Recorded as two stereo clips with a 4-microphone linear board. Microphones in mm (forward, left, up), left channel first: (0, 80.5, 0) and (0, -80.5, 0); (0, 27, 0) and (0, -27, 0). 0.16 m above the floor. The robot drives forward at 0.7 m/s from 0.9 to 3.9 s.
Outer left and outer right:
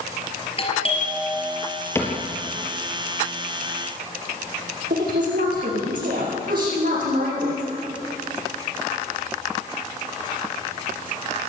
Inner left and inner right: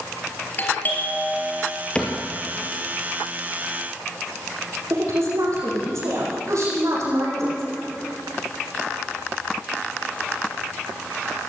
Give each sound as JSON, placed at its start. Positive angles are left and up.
{"t": 0.6, "sound": "a doorbell", "side_deg": 35, "distance_m": 3.5}
{"t": 1.9, "sound": "a cupboard door", "side_deg": 15, "distance_m": 2.5}
{"t": 4.9, "sound": "a woman speaking", "side_deg": -80, "distance_m": 7.0}